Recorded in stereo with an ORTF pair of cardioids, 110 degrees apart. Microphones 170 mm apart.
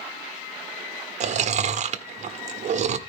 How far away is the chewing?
About 1.0 m.